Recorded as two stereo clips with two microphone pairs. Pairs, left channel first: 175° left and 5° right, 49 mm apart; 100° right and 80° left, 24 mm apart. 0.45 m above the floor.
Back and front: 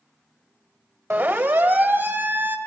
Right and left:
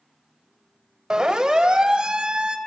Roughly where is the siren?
Ahead.